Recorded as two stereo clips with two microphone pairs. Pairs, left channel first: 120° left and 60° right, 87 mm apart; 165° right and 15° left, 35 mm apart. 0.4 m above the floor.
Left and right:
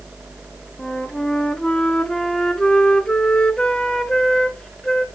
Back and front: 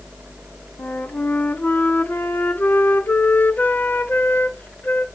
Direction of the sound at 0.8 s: 160° right.